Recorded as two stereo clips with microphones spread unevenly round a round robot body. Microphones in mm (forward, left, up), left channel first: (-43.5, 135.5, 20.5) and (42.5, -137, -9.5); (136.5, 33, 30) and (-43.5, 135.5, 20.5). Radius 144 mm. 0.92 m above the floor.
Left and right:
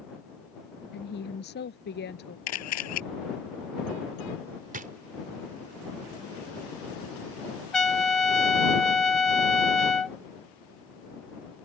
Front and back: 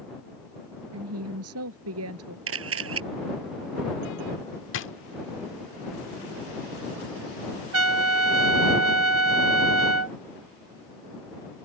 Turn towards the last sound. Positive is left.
turn(degrees=-165)